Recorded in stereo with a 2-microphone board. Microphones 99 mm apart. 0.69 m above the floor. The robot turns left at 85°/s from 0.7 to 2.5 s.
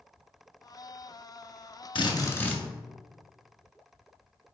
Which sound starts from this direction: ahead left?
A drill, at 1.9 s.